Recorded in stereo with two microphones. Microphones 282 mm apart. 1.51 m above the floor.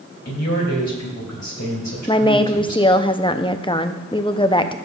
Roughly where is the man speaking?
Left.